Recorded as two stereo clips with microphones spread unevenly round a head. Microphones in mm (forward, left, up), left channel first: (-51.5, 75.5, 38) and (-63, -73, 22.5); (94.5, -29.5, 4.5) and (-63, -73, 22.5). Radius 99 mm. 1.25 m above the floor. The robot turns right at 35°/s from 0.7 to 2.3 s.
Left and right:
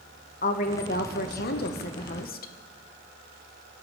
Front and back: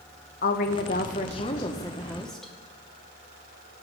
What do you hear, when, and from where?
0.4 s a woman speaking: 45° left, 1.1 m; by 2.5 s 100° left, 1.1 m